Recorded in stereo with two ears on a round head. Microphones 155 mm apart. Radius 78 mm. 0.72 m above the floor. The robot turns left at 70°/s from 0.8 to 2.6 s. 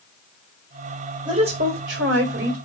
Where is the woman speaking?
25° right, 3 m; by 2.6 s 120° right, 3 m.